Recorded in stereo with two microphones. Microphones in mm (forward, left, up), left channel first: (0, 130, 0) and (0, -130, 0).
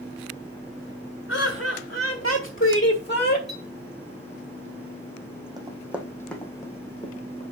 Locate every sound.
1.3 s laughter: 55° left (ahead or behind), 1.8 m; by 3.4 s 35° left (ahead or behind), 1.1 m
3.5 s a clink: centre (ahead or behind), 2 m
5.6 s running footsteps: 15° right (ahead or behind), 1.3 m; by 7.4 s 25° left (ahead or behind), 1.8 m